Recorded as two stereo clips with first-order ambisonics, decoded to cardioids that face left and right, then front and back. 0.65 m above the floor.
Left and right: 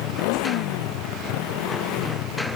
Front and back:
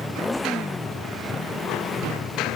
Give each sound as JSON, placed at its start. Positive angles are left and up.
{"t": 0.0, "sound": "a motorcycle", "azimuth_deg": 85}